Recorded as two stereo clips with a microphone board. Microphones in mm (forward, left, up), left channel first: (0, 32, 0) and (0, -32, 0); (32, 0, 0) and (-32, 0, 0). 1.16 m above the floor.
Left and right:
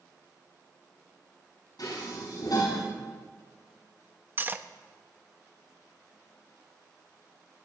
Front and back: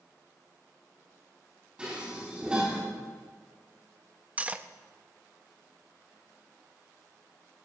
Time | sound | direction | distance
1.8 | dishes clattering | 105° left | 5.5 m
4.4 | cutlery clinking | 130° right | 0.5 m